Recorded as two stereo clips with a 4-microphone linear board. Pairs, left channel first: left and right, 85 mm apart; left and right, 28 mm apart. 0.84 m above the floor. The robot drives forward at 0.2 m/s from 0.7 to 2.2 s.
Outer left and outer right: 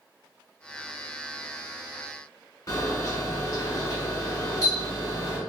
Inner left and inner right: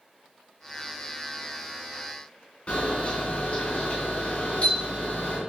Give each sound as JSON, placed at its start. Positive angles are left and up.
{"t": 2.7, "sound": "a camera shutter", "side_deg": 40, "distance_m": 1.8}